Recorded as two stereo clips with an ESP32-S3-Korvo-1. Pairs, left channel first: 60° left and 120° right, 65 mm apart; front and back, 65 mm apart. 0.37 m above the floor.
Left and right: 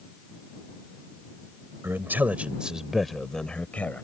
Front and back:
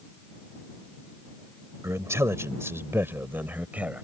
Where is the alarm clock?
No alarm clock in this recording.